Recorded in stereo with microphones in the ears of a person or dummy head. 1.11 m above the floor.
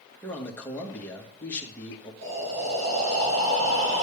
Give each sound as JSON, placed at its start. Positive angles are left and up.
{"t": 0.2, "sound": "a man speaking", "side_deg": 5, "distance_m": 1.4}
{"t": 2.2, "sound": "breathing", "side_deg": -75, "distance_m": 3.0}